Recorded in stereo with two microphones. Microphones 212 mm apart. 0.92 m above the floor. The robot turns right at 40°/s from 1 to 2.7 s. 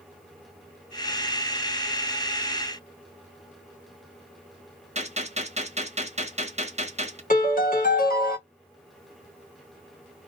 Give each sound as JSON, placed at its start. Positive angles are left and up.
{"t": 5.0, "sound": "a gunshot", "side_deg": -30, "distance_m": 1.1}
{"t": 7.3, "sound": "a piano", "side_deg": 40, "distance_m": 1.2}